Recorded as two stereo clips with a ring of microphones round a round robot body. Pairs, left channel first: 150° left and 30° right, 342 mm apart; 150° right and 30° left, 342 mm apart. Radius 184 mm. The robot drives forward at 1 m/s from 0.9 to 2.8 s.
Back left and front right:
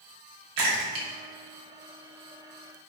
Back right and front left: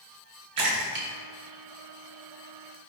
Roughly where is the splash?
Ahead.